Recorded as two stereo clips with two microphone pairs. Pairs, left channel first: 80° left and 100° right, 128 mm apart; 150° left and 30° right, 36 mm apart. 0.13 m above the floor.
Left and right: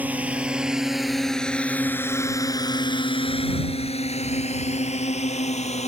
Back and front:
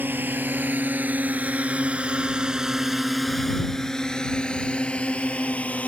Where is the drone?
25° right; by 5.9 s 105° left.